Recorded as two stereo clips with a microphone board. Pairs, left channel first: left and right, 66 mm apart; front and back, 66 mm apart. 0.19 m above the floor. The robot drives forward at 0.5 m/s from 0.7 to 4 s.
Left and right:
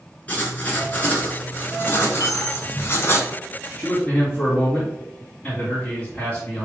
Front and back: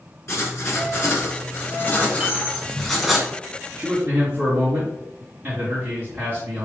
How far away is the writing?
About 1.6 m.